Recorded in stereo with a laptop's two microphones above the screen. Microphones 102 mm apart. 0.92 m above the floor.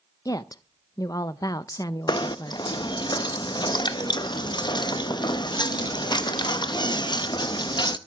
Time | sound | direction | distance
0.2 | a woman speaking | 40° left (ahead or behind) | 0.6 m
2.1 | knocking | 50° left (ahead or behind) | 0.6 m